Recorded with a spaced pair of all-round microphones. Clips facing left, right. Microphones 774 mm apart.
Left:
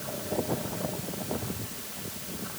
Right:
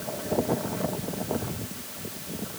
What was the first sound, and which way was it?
Only background noise.